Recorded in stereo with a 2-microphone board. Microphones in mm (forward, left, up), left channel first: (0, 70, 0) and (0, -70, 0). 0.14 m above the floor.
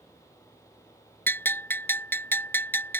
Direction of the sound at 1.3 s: 15° left (ahead or behind).